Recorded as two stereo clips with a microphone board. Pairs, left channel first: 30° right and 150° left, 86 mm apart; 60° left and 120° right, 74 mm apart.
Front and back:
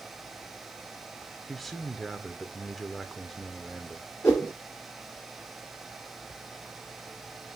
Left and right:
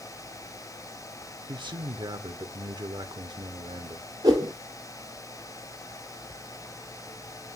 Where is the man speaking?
120° right, 0.8 m.